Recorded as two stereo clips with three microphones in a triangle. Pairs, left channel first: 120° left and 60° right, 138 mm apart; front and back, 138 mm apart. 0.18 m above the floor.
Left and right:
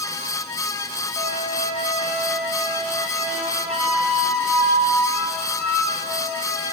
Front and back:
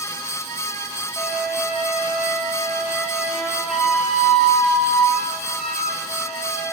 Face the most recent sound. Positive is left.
turn(degrees=-95)